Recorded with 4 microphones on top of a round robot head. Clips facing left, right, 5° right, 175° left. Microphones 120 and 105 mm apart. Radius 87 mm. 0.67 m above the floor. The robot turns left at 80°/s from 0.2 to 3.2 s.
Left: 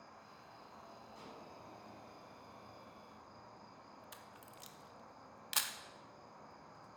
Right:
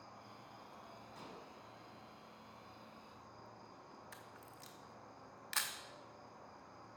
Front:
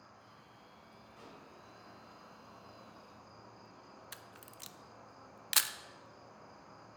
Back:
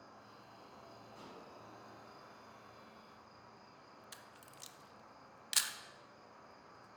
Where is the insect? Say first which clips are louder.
Right 1 dB, back 1 dB; 125° right, 1.4 m; by 7.0 s 5° right, 1.4 m.